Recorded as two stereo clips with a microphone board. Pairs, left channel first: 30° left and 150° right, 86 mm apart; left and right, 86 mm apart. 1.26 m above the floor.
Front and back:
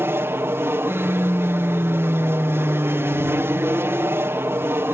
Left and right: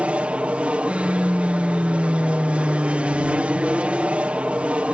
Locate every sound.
0.0 s an aircraft: 150° right